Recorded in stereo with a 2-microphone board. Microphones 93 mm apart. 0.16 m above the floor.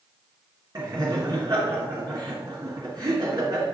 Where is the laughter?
50° right (ahead or behind), 2 m.